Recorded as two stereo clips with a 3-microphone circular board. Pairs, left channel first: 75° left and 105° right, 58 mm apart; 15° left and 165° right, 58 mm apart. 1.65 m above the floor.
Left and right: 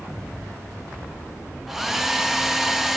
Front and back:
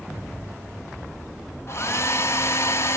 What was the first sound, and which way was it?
A hair dryer, 20° right.